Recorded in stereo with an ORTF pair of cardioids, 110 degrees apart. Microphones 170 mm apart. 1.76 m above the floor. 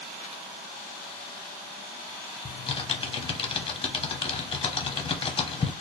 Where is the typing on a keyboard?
30° left, 0.9 m.